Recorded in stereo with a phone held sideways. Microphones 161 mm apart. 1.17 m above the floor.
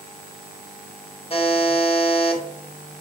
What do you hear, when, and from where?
1.3 s a buzzer: 40° left (ahead or behind), 0.6 m